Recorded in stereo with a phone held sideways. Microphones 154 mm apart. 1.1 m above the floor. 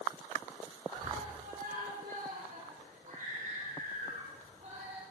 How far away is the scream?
About 4.5 m.